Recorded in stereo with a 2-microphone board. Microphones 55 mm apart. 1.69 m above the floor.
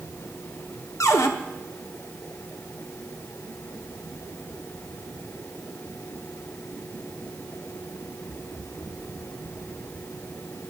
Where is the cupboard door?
75° left (ahead or behind), 1.0 m.